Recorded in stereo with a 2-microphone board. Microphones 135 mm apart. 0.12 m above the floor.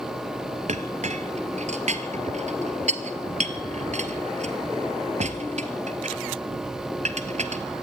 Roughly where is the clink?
Right.